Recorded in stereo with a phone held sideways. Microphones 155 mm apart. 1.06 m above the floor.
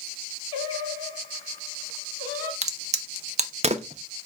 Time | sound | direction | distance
0.5 | singing | 35° left (ahead or behind) | 2.5 m
2.6 | a crack | 45° right (ahead or behind) | 0.5 m